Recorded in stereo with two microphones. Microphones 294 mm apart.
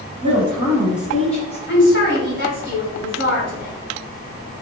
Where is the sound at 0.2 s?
20° right (ahead or behind), 1.0 m; by 1.6 s 10° left (ahead or behind), 1.2 m.